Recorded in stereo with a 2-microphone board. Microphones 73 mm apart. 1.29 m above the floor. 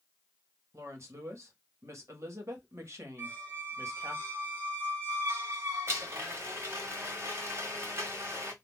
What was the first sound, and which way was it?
A woman speaking, 40° right (ahead or behind).